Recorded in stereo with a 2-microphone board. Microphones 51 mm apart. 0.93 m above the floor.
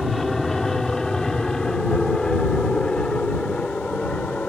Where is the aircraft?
5° left (ahead or behind); by 4.5 s 25° left (ahead or behind).